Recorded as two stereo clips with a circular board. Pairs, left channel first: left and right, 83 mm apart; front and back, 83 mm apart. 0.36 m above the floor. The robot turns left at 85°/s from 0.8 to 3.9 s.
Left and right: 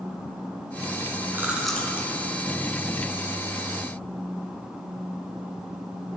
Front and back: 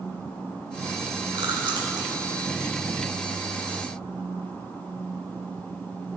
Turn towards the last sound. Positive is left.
turn(degrees=-10)